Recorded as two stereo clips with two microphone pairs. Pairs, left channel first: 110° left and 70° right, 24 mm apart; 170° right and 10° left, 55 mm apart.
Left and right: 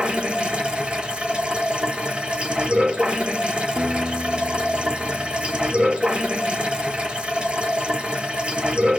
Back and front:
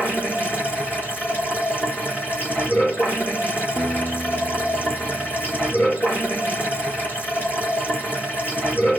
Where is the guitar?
120° right, 1.7 m.